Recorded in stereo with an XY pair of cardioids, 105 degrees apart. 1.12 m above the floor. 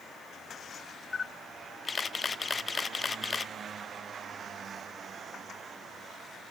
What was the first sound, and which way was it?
A camera shutter, 30° left.